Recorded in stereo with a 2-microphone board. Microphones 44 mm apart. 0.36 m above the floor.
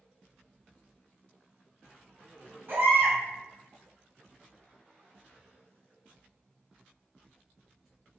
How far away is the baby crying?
About 1.6 m.